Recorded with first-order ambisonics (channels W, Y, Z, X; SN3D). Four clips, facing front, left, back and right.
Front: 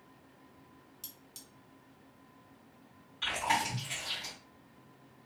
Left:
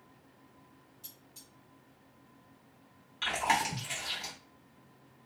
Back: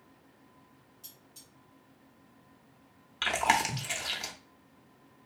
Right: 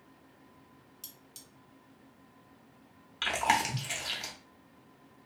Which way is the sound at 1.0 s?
50° right.